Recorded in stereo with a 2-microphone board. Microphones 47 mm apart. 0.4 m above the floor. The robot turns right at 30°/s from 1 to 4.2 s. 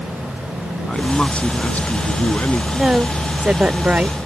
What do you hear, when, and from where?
0.9 s a man speaking: 15° left; by 2.6 s 60° left
2.7 s a woman speaking: 150° right; by 4.2 s 110° right